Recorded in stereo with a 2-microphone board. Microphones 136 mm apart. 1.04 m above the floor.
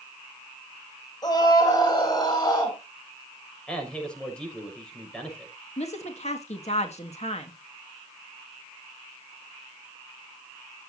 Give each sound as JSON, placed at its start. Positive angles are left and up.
{"t": 1.2, "sound": "a scream", "side_deg": 30, "distance_m": 7.5}
{"t": 3.7, "sound": "a man speaking", "side_deg": 5, "distance_m": 6.0}
{"t": 5.8, "sound": "a woman speaking", "side_deg": 55, "distance_m": 1.9}